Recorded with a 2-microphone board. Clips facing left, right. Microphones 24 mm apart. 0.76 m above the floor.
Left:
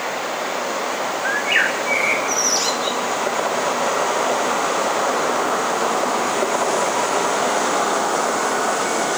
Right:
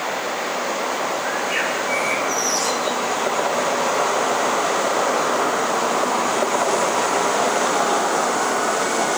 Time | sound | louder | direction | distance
1.2 | a bird | left 4 dB | 40° left (ahead or behind) | 3 m